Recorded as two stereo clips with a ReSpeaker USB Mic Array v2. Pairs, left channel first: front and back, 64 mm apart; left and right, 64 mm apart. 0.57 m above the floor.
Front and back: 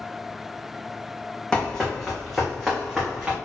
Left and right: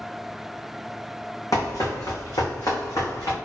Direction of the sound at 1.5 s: 75° left.